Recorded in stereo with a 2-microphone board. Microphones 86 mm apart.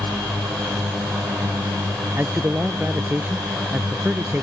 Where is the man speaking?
25° right (ahead or behind).